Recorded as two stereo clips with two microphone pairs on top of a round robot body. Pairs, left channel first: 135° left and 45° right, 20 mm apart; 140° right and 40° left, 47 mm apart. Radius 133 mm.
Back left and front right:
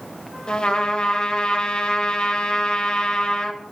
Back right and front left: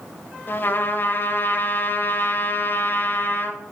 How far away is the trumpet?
About 1.9 m.